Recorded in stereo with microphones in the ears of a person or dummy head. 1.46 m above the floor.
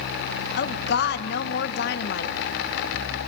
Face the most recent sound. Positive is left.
turn(degrees=65)  # may be behind; listen again after turning